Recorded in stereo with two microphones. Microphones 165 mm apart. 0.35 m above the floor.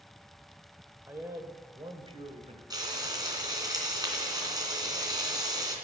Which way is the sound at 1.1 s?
15° right (ahead or behind).